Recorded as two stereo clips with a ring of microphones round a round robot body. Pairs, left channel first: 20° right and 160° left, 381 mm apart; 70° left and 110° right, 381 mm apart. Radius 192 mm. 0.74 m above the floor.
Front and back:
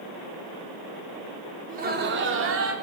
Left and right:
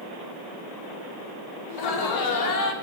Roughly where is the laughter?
Left.